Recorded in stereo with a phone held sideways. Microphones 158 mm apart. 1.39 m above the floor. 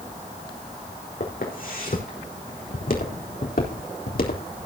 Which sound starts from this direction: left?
Footsteps, at 1.2 s.